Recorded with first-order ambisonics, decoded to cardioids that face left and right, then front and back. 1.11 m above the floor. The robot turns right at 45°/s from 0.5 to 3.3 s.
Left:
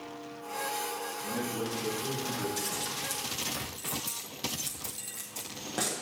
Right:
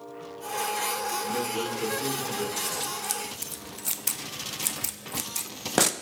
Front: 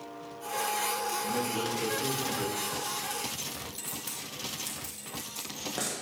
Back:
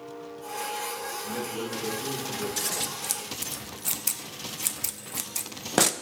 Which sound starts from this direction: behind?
Scissors, at 2.6 s.